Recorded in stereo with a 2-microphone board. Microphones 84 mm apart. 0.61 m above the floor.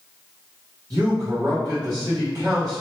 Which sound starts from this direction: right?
A man speaking, at 0.9 s.